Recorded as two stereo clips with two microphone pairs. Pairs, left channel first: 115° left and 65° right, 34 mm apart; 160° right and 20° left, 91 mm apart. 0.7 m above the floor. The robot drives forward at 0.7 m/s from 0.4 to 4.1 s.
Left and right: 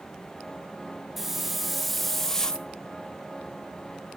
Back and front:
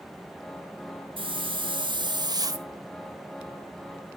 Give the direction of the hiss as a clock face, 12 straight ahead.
11 o'clock.